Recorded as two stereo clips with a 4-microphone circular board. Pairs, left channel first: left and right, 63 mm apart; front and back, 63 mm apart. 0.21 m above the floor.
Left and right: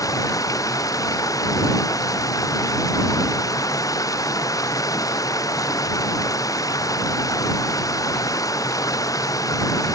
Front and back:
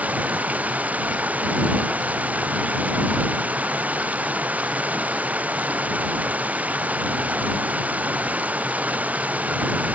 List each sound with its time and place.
0.0 s running water: 115° left